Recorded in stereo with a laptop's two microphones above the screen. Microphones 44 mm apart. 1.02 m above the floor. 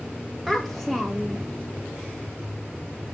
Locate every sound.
0.5 s a child speaking: 5° right (ahead or behind), 0.9 m